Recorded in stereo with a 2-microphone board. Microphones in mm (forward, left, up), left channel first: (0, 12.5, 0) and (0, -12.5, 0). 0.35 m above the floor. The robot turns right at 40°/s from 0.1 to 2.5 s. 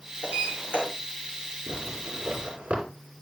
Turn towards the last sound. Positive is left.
turn(degrees=-60)  # may be behind; listen again after turning